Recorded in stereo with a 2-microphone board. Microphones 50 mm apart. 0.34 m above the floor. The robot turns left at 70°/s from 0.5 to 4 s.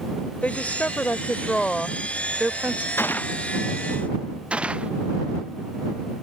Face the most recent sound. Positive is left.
turn(degrees=-20)  # may be behind; listen again after turning